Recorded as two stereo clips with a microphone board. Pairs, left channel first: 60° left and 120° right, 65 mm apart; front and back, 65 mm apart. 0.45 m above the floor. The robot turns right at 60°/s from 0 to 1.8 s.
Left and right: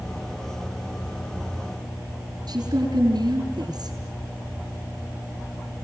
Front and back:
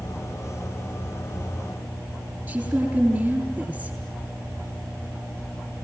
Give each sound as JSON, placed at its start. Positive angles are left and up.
{"t": 2.5, "sound": "a woman speaking", "azimuth_deg": -110, "distance_m": 9.5}